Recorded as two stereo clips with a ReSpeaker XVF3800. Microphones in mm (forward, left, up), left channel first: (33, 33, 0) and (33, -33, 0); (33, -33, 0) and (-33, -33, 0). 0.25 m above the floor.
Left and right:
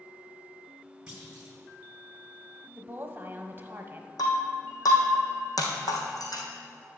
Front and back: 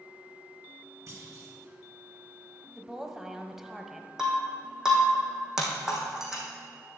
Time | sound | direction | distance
1.1 | a clunk | 165° right | 2.5 m
2.8 | a woman speaking | 100° right | 1.0 m
4.2 | breaking glass | 100° left | 2.5 m